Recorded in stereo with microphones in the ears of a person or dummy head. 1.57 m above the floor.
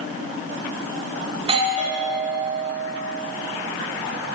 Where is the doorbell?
35° right (ahead or behind), 2.5 m.